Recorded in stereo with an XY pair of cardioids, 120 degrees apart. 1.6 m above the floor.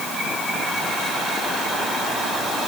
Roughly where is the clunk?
I don't hear a clunk.